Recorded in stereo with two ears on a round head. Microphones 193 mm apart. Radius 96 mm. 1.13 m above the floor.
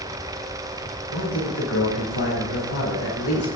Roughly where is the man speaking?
Left.